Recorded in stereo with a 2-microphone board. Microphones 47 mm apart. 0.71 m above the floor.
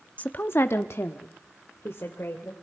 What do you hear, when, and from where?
0.2 s a woman speaking: 35° left (ahead or behind), 0.8 m; by 2.5 s 65° left (ahead or behind), 2.5 m